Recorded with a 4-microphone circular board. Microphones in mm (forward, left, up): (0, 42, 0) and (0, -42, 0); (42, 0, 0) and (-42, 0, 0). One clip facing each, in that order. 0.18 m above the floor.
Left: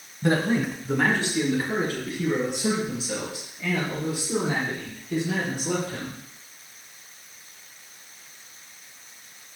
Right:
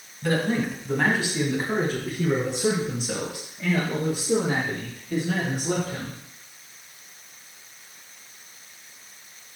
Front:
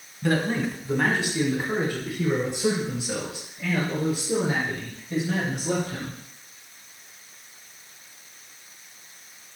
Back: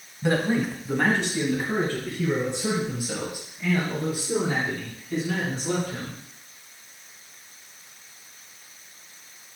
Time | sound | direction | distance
0.2 | a man speaking | 120° left | 1.8 m